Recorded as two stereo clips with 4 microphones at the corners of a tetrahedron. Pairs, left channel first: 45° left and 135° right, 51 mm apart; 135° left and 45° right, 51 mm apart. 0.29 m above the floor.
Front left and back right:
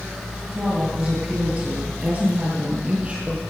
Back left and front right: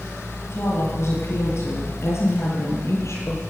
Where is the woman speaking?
145° left, 6.5 m; by 3.4 s 155° left, 8 m.